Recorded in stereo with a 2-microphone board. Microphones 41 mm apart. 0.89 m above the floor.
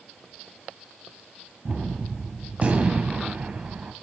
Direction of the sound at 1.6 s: 40° right (ahead or behind).